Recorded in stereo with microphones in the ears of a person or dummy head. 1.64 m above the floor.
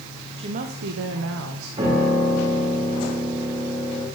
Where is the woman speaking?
25° right (ahead or behind), 0.8 m; by 1.7 s 75° right (ahead or behind), 1.5 m.